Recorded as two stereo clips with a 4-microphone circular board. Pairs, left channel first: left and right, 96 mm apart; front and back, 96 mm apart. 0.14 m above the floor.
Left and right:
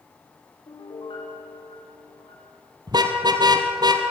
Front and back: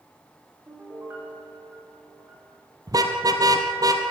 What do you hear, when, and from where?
0.7 s a piano: 115° left, 8 m
2.9 s a car horn: 130° right, 2 m